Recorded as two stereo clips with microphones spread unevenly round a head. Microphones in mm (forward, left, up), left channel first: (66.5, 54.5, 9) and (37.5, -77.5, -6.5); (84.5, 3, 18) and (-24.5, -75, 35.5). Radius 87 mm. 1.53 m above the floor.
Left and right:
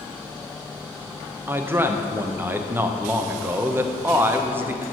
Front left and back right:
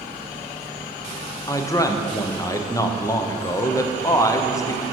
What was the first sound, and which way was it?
A man speaking, 30° right.